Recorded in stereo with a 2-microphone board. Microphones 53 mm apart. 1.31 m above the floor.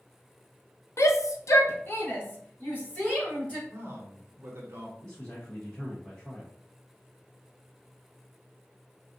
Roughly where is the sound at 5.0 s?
Centre.